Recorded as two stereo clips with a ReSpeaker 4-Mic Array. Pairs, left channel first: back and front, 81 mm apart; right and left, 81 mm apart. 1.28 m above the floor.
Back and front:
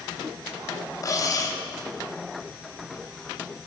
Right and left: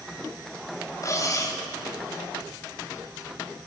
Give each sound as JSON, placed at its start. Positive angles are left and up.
{"t": 1.0, "sound": "cutlery clinking", "azimuth_deg": -135, "distance_m": 3.5}